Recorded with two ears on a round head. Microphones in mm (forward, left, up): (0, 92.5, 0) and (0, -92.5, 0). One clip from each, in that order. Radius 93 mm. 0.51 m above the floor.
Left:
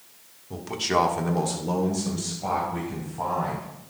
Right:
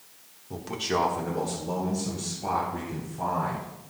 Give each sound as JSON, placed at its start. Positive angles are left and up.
{"t": 0.5, "sound": "a man speaking", "side_deg": -5, "distance_m": 1.2}